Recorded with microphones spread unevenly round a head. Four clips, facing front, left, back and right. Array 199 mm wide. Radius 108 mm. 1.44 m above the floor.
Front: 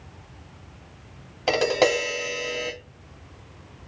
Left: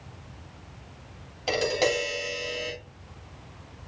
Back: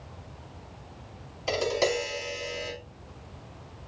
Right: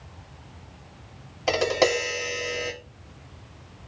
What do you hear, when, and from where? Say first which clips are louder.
1.5 s tapping: right 3 dB, front 6 dB; 25° right, 3 m